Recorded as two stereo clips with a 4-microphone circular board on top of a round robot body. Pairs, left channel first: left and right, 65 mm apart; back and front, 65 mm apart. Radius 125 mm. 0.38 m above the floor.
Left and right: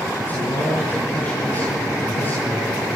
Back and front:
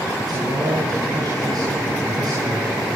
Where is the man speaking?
25° left, 7.5 m.